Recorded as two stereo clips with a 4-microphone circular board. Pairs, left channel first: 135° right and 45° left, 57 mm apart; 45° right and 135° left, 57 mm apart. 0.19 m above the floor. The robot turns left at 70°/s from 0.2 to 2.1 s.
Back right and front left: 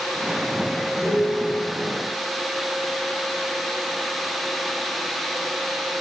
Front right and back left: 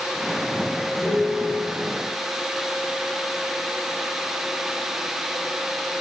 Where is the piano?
65° right, 4.5 m; by 1.7 s 110° right, 4.5 m.